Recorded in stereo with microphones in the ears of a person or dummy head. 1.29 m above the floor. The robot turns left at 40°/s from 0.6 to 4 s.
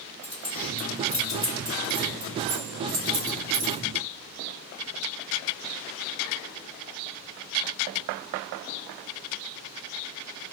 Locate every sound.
0.2 s keys jangling: 30° left (ahead or behind), 1.4 m; by 3.8 s 80° right, 1.4 m